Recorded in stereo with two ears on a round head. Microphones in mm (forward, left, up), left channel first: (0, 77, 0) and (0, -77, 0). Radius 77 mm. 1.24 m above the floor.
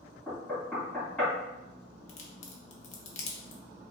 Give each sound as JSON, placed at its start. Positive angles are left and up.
{"t": 0.3, "sound": "knocking", "side_deg": 5, "distance_m": 1.6}
{"t": 2.1, "sound": "a crack", "side_deg": 40, "distance_m": 0.7}